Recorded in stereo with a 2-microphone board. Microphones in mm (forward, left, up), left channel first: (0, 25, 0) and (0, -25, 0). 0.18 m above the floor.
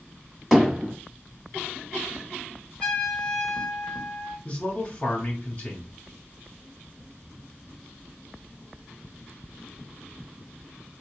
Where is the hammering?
5° left (ahead or behind), 1.4 m.